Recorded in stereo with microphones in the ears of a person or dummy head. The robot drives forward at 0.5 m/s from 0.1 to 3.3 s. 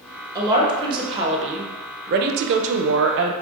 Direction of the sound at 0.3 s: 20° right (ahead or behind).